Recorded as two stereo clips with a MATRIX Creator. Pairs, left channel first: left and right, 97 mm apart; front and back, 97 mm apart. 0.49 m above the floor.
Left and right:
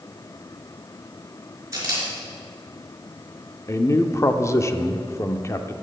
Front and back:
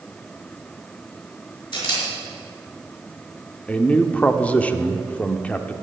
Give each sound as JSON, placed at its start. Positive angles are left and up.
{"t": 1.7, "sound": "a camera shutter", "azimuth_deg": -35, "distance_m": 4.5}
{"t": 3.7, "sound": "a man speaking", "azimuth_deg": 65, "distance_m": 0.8}